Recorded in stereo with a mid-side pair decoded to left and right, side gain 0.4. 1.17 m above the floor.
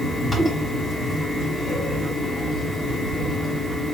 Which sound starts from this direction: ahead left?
A fan, at 0.0 s.